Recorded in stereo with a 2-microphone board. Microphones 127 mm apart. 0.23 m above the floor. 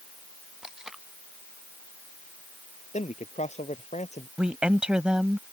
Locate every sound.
0.6 s tape being pulled: 5° right (ahead or behind)
2.9 s a man speaking: 65° left (ahead or behind)
4.4 s a woman speaking: 10° right (ahead or behind)